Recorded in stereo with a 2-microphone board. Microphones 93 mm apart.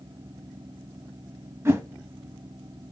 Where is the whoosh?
30° right (ahead or behind), 0.6 m.